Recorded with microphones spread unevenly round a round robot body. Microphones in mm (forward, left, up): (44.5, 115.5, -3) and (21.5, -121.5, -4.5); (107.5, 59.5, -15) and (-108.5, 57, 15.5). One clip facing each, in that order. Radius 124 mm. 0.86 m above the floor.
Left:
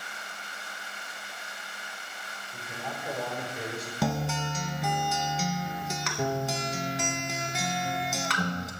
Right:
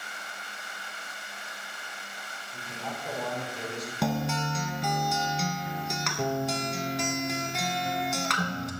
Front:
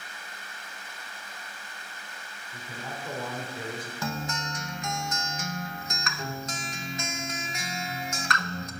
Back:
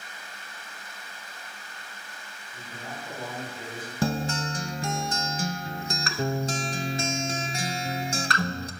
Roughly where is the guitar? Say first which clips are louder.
Right 1 dB, back 8 dB; behind.